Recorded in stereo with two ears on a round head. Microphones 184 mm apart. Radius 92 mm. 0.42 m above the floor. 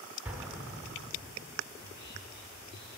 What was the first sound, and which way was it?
An explosion, 10° right (ahead or behind).